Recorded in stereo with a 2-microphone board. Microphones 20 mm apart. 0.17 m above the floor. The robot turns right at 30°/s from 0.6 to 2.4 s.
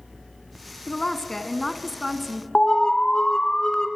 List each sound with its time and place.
0.9 s a woman speaking: 145° left, 1.4 m; by 2.5 s 165° right, 1.4 m
2.5 s an alarm: 30° left (ahead or behind), 1.8 m